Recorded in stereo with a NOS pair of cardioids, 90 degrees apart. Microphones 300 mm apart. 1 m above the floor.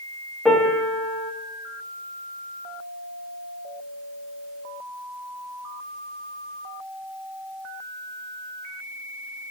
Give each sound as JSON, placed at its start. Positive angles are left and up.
{"t": 0.5, "sound": "a piano", "azimuth_deg": 0, "distance_m": 0.9}